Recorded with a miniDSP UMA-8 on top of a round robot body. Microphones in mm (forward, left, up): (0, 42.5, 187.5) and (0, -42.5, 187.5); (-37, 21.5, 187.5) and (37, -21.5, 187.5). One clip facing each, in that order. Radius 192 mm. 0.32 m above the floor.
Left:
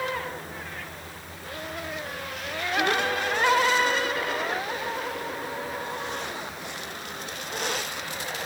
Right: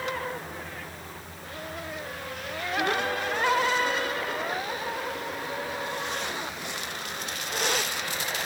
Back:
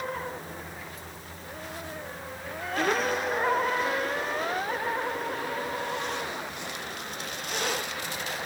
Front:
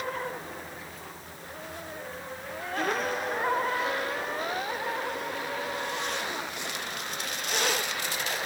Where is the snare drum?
No snare drum in this recording.